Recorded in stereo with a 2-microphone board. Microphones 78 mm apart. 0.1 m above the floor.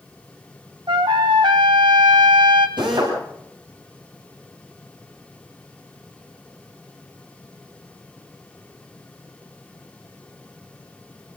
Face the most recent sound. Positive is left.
turn(degrees=-85)